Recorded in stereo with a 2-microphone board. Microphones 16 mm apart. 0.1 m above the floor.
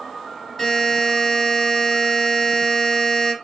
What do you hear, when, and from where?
0.6 s a buzzer: 10° left (ahead or behind), 1.9 m